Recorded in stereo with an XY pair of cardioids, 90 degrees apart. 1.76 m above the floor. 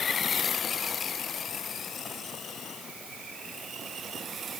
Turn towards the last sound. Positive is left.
No sound to turn to.